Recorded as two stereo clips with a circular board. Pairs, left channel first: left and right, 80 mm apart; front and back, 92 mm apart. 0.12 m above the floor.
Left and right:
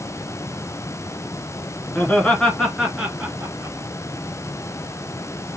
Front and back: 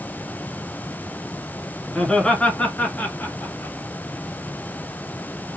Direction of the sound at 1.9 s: 75° left.